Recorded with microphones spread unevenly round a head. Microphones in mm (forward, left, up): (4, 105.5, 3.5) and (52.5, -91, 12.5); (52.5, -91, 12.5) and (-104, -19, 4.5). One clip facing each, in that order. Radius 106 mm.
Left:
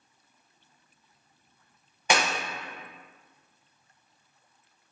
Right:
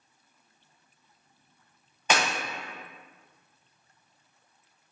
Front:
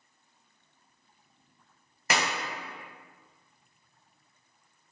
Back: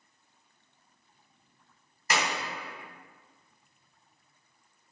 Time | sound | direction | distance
2.1 | a clap | 25° left | 0.8 m